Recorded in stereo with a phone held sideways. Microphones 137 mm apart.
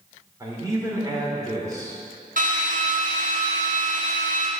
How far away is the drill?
About 1.6 m.